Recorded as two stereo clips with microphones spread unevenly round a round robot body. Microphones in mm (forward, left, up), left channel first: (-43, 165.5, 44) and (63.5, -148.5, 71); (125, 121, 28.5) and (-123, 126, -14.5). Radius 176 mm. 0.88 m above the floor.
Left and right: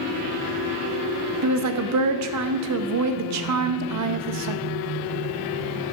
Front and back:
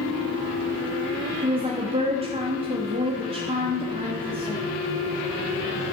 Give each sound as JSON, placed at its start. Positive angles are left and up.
{"t": 1.4, "sound": "a woman speaking", "azimuth_deg": -115, "distance_m": 0.7}